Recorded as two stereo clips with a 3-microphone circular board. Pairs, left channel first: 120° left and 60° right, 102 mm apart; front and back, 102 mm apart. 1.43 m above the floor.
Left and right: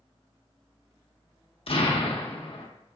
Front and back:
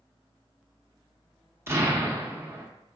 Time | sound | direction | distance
1.7 | an explosion | 120° left | 0.7 m